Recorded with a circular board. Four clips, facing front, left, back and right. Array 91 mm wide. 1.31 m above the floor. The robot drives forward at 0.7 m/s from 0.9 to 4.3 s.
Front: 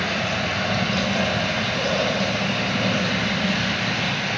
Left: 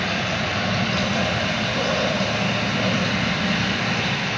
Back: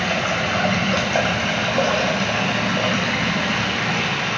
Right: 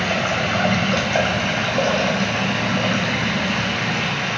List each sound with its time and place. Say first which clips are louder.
0.0 s running water: right 4 dB, back 3 dB; 130° right, 2.5 m; by 4.4 s 155° right, 4 m